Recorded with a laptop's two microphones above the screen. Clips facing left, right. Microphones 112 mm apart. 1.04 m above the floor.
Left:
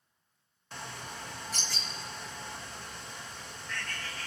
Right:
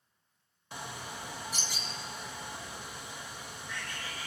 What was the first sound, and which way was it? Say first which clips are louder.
A bird: right 1 dB; 10° right (ahead or behind).